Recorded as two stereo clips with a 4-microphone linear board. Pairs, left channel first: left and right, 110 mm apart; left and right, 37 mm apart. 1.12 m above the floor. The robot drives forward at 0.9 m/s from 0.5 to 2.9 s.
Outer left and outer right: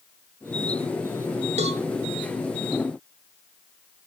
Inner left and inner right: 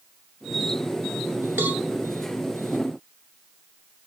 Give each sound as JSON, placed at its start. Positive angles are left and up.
{"t": 1.6, "sound": "a cowbell", "side_deg": -80, "distance_m": 1.2}